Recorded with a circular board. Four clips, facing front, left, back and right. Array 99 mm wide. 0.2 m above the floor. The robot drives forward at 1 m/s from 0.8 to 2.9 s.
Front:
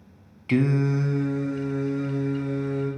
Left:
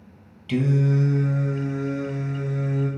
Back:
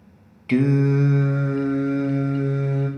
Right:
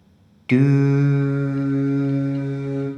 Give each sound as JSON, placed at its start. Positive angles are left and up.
{"t": 0.5, "sound": "singing", "azimuth_deg": -90, "distance_m": 0.6}